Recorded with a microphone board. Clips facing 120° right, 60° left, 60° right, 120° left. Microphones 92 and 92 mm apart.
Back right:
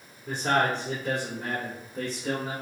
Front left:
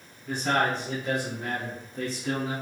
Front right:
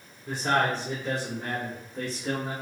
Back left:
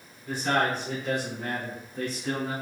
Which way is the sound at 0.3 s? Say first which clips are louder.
Back right 1 dB, front right 1 dB; 125° right.